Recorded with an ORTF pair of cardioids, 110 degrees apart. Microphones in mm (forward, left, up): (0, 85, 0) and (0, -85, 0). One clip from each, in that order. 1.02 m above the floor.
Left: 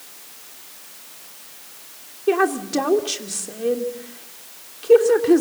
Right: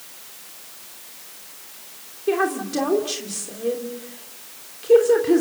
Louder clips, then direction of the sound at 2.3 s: Left 3 dB; 25° left.